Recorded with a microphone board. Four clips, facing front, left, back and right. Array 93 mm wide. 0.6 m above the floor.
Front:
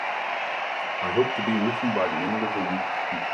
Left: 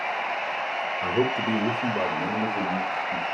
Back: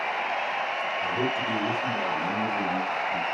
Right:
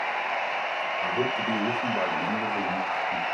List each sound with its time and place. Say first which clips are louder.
1.0 s a man speaking: left 4 dB, front 7 dB; 45° left, 1.5 m; by 3.2 s straight ahead, 2 m